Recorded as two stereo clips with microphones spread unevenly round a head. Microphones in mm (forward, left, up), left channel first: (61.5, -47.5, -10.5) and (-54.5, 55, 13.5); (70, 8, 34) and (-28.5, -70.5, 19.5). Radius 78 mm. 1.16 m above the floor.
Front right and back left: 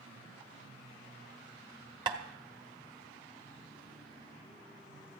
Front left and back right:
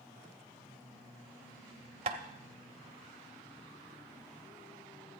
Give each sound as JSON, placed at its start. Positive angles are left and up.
{"t": 2.1, "sound": "tapping", "azimuth_deg": 175, "distance_m": 0.8}